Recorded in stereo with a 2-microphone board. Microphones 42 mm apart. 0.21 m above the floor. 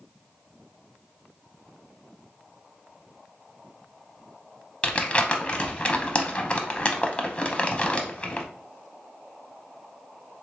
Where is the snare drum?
No snare drum in this recording.